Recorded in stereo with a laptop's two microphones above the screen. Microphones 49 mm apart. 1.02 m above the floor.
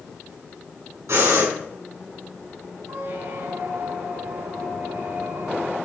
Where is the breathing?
75° right (ahead or behind), 5.5 m.